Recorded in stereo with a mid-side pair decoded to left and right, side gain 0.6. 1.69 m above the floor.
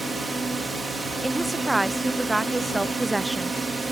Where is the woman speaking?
15° right.